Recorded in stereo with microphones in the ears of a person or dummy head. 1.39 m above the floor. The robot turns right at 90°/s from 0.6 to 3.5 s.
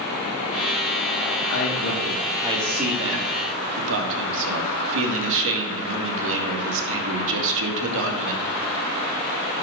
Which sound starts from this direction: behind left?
A man speaking, at 1.5 s.